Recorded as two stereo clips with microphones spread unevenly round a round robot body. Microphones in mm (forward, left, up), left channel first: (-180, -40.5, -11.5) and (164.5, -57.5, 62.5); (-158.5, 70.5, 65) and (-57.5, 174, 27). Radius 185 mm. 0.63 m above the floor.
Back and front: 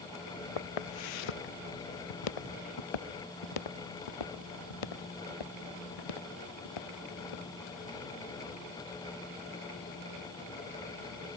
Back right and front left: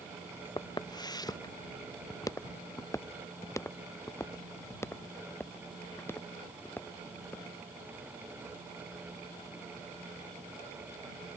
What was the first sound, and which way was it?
Footsteps, 170° left.